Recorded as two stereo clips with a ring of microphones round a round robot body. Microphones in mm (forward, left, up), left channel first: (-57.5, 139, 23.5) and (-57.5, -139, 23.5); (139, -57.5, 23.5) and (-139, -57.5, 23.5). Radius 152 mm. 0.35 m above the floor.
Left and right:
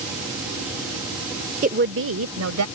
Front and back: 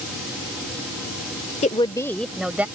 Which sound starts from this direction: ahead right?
A woman speaking, at 1.6 s.